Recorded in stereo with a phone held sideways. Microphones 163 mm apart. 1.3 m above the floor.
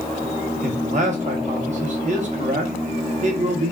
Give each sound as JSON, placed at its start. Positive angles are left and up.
{"t": 0.6, "sound": "a man speaking", "side_deg": -45, "distance_m": 0.7}